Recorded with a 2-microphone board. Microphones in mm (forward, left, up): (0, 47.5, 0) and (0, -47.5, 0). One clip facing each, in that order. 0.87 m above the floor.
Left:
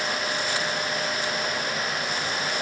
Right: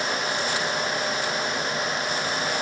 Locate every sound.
Only background noise.